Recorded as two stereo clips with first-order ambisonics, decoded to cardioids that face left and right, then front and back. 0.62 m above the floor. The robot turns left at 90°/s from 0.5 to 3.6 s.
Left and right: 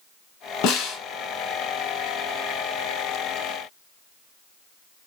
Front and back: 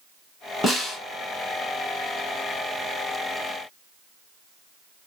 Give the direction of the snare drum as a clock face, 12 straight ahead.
9 o'clock.